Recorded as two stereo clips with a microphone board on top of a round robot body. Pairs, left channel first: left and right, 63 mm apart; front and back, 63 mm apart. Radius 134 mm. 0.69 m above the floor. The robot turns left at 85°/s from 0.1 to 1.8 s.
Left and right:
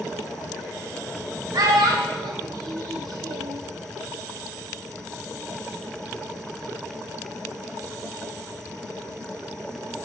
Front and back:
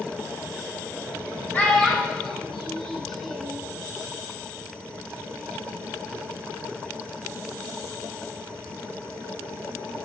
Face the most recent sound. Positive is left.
turn(degrees=-85)